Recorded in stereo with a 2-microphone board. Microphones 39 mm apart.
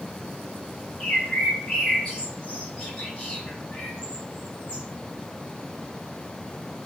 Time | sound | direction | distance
1.0 | a bird | 35° left (ahead or behind) | 1.8 m